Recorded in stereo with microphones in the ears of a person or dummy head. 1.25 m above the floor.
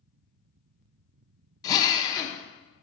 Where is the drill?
25° left (ahead or behind), 0.8 m.